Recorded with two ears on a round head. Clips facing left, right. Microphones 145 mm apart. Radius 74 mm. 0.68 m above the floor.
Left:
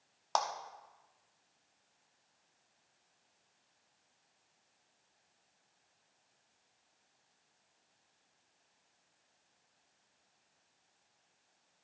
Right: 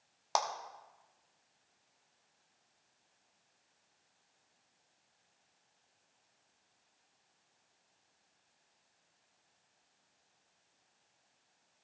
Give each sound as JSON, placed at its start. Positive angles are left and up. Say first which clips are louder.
{"t": 0.3, "sound": "a clap", "louder": "even", "side_deg": -10, "distance_m": 0.9}